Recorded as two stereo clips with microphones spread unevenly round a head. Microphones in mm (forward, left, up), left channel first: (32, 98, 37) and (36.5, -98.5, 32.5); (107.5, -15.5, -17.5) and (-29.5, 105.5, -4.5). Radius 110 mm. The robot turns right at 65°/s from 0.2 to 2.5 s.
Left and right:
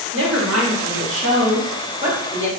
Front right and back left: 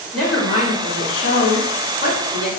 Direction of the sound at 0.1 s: 130° right.